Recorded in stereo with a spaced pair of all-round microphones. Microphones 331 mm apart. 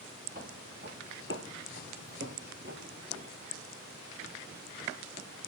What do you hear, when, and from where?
0.3 s footsteps: 30° right (ahead or behind), 2.5 m